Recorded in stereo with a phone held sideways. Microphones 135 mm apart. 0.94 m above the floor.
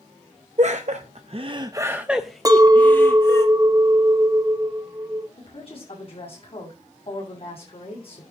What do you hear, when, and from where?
0.6 s laughter: 60° right (ahead or behind), 0.9 m; by 3.5 s 20° left (ahead or behind), 1.4 m
2.5 s a clink: 25° right (ahead or behind), 0.5 m
5.4 s a woman speaking: 45° left (ahead or behind), 8 m